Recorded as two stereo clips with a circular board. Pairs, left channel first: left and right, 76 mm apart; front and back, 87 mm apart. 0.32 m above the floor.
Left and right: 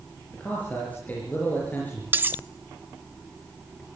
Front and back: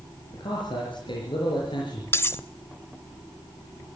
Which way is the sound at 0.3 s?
20° left.